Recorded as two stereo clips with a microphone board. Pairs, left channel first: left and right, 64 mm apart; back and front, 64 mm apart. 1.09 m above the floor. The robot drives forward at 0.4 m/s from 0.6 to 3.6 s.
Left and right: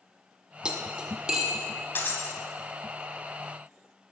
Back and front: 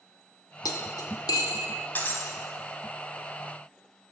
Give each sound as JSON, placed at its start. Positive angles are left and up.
{"t": 0.7, "sound": "cutlery clinking", "azimuth_deg": -165, "distance_m": 0.9}
{"t": 1.9, "sound": "breaking glass", "azimuth_deg": 130, "distance_m": 1.3}